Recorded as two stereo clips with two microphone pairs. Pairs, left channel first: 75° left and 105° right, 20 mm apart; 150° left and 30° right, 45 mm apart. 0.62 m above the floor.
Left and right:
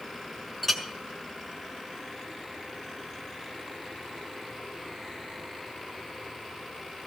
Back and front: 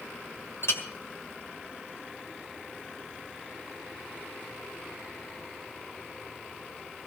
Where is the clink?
160° left, 1.8 m.